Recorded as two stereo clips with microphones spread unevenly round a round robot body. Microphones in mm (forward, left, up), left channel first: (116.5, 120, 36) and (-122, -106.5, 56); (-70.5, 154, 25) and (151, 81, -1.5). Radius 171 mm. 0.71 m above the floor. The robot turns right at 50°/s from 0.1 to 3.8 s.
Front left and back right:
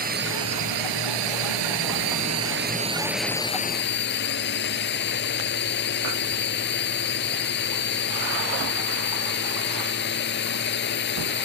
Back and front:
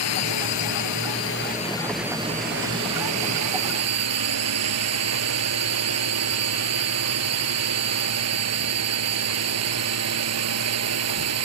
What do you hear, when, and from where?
0.0 s a drone: 160° left; by 11.5 s 15° right